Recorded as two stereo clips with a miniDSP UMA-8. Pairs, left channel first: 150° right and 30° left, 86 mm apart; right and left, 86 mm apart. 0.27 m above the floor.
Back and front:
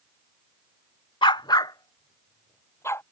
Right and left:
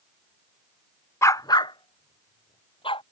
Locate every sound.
1.2 s a dog barking: 145° right; by 3.0 s 90° right